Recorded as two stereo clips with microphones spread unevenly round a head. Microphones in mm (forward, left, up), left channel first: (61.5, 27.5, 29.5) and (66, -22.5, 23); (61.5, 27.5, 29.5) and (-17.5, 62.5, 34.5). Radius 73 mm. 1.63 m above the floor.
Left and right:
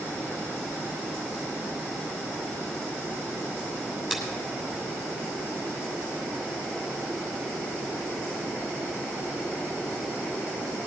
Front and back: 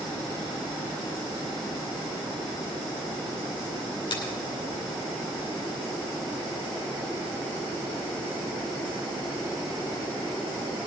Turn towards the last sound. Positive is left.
turn(degrees=-10)